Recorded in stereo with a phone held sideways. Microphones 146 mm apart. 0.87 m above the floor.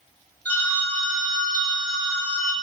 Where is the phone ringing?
10° left (ahead or behind), 0.7 m.